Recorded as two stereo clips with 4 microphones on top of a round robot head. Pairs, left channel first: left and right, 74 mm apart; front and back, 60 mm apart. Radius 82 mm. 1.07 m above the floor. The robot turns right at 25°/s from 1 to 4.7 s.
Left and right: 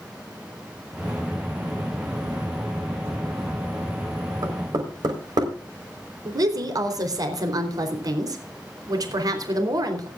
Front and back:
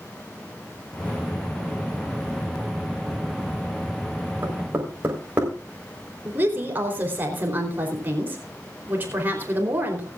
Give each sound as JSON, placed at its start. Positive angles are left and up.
{"t": 4.4, "sound": "knocking", "azimuth_deg": -120, "distance_m": 4.0}
{"t": 6.2, "sound": "a woman speaking", "azimuth_deg": -120, "distance_m": 3.5}